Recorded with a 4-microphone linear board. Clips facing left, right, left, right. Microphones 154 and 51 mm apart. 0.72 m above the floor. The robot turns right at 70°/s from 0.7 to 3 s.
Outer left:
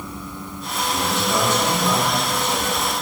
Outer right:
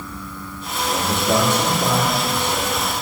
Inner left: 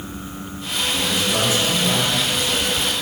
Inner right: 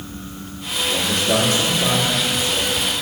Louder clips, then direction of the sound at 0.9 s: Outer right 3 dB, inner right 3 dB; 130° right.